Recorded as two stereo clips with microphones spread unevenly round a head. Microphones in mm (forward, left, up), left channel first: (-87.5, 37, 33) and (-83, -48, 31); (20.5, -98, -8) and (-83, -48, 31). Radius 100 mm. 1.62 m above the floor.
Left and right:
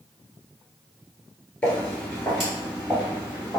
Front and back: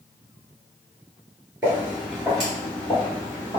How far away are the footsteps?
About 1.8 m.